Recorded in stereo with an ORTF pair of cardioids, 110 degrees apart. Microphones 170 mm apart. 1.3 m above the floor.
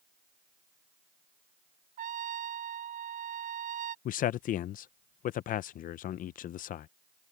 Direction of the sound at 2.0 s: 55° right.